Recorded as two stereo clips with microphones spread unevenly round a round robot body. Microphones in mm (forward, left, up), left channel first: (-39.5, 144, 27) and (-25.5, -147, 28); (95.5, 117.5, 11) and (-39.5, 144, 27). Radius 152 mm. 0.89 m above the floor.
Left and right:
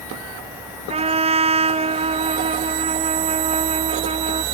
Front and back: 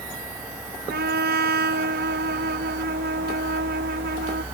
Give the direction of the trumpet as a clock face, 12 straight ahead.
5 o'clock.